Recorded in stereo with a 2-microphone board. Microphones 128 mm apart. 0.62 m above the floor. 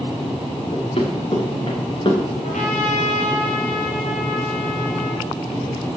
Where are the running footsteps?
50° left (ahead or behind), 3.5 m; by 2.2 s 35° left (ahead or behind), 3.5 m.